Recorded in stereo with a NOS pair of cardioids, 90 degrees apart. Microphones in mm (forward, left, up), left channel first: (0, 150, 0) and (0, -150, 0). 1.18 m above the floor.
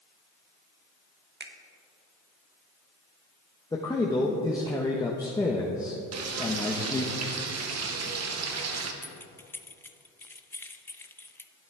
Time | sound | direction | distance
1.4 | a finger snap | 35° right | 1.2 m
3.7 | a man speaking | 10° left | 1.2 m
6.1 | frying | 60° right | 1.3 m
9.0 | keys jangling | 10° left | 0.6 m